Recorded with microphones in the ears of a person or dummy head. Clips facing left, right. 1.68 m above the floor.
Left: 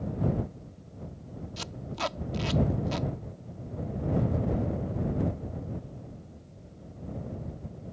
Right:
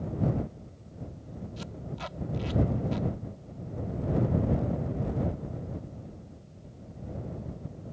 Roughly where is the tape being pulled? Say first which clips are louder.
Left 6 dB; left.